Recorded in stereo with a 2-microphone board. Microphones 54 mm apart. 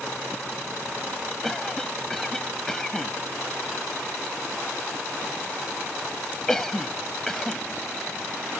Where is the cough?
10° left (ahead or behind).